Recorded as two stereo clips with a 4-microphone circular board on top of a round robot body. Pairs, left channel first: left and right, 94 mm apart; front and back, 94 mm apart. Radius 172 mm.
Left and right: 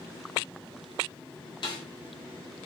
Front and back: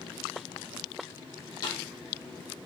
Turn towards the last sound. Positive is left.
turn(degrees=45)